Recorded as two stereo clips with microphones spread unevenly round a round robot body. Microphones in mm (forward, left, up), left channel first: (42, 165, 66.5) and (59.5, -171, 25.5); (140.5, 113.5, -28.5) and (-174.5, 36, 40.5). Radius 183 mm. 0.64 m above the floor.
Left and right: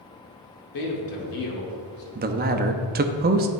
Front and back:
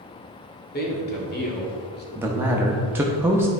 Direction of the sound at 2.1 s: 70° right.